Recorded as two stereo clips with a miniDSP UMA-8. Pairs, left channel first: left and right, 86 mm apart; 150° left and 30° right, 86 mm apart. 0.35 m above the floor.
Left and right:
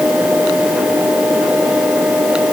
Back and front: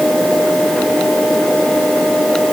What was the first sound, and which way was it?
Only background noise.